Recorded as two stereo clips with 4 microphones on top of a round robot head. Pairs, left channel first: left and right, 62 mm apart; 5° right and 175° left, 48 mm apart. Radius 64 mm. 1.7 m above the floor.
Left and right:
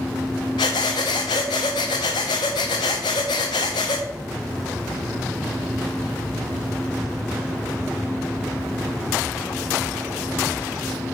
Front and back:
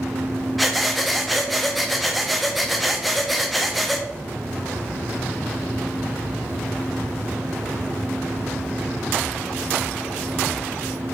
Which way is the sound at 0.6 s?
85° left.